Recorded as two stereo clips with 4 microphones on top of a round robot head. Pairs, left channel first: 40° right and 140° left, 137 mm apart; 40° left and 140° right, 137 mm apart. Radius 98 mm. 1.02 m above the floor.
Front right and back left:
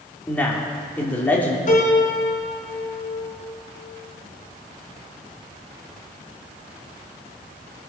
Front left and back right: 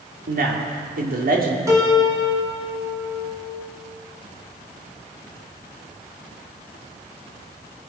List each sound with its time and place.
0.3 s a man speaking: 120° right, 2.5 m
1.7 s a piano: 70° right, 3 m